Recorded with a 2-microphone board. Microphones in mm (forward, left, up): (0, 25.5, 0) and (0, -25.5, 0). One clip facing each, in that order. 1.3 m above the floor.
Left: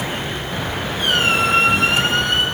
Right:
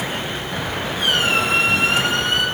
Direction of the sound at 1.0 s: 45° left (ahead or behind).